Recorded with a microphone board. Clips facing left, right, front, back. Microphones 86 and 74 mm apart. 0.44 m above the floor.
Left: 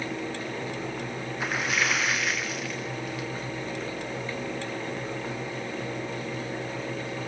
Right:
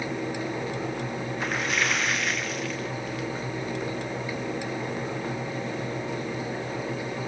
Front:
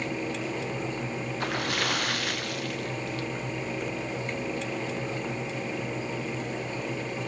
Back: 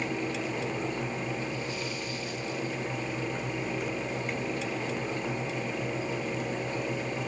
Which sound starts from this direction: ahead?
A splash, at 1.4 s.